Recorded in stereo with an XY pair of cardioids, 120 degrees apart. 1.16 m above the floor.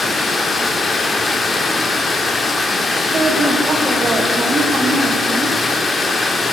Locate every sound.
0.0 s running water: 20° left, 1.6 m
3.1 s a woman speaking: 30° right, 2.5 m